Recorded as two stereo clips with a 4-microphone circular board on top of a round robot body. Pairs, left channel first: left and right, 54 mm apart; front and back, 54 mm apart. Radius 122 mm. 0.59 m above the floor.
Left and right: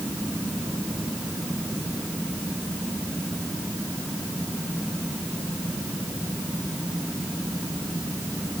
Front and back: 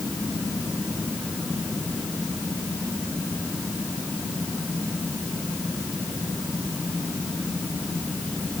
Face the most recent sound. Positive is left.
No sound to turn to.